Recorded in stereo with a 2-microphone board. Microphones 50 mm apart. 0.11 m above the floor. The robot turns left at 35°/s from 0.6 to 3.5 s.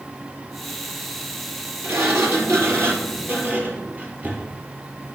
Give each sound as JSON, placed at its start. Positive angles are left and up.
{"t": 1.8, "sound": "a sliding door", "azimuth_deg": -85, "distance_m": 2.5}